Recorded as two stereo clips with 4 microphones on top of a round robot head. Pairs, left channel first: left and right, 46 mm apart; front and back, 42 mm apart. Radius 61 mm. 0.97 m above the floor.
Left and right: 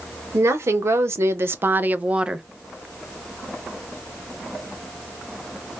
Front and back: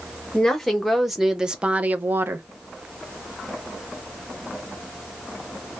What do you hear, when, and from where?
0.3 s a woman speaking: 85° right, 1.1 m; by 2.5 s 170° right, 0.6 m